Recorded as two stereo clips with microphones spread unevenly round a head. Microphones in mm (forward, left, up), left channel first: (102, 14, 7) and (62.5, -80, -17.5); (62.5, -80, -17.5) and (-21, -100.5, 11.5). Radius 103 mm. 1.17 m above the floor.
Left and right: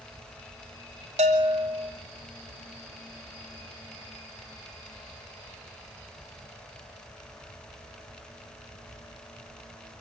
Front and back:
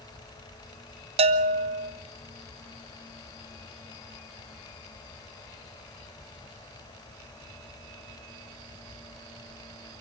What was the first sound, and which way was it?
A bell, 165° right.